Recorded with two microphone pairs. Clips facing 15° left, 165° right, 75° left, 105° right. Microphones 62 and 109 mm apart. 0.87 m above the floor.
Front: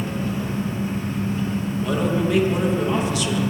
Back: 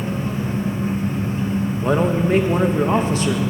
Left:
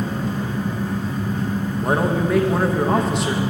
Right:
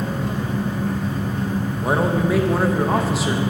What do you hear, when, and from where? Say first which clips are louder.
0.0 s an engine running: back 2 dB, even; 115° right, 1.4 m
1.8 s a man speaking: back 3 dB, even; 175° left, 0.5 m